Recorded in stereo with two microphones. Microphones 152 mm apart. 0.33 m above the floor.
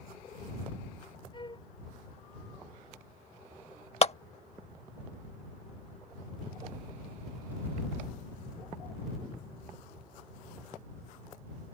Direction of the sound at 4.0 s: 45° left (ahead or behind).